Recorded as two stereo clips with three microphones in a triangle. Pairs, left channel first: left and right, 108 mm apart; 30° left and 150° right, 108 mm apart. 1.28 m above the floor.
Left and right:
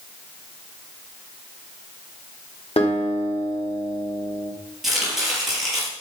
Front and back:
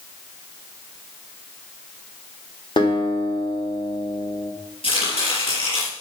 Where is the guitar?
65° left, 3 m.